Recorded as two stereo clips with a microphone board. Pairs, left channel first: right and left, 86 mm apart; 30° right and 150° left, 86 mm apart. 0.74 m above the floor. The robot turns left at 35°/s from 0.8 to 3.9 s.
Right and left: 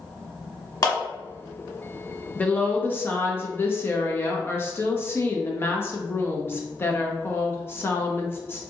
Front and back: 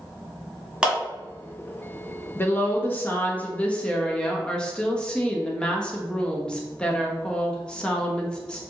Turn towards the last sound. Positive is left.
turn(degrees=-95)